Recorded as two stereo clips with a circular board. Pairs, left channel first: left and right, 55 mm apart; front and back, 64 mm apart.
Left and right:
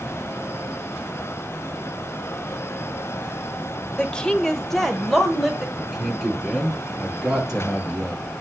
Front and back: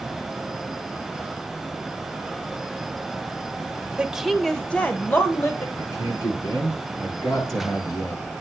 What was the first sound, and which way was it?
A woman speaking, 135° left.